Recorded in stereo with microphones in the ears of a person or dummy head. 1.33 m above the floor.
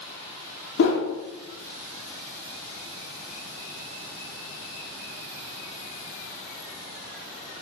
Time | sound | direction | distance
0.8 | a whoosh | 65° left (ahead or behind) | 0.7 m